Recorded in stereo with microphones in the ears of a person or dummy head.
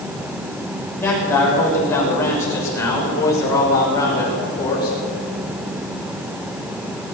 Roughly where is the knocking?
No knocking in this recording.